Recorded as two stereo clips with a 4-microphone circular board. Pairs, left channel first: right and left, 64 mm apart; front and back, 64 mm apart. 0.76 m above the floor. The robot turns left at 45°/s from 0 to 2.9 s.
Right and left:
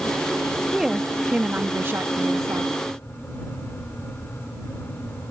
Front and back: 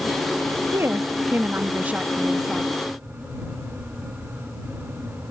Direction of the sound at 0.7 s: 175° left.